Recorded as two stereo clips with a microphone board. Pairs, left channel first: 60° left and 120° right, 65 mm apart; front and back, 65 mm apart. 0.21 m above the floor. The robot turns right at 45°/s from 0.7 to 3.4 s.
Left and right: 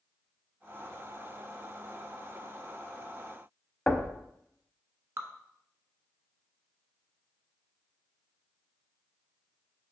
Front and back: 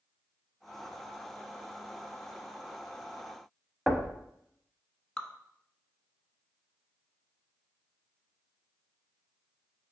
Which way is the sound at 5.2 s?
75° right.